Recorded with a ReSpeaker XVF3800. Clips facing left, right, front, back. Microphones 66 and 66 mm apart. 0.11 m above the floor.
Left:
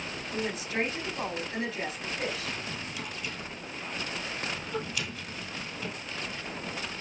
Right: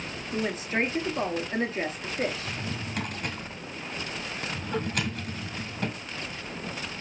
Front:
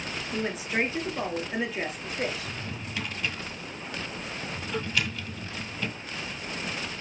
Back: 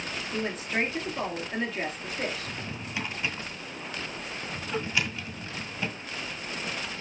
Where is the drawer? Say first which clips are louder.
Right 2 dB, even; 110° right, 1.7 m.